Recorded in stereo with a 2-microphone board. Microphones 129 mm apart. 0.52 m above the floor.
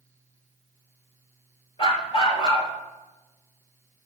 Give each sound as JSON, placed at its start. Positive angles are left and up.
{"t": 1.8, "sound": "a dog barking", "side_deg": 45, "distance_m": 3.5}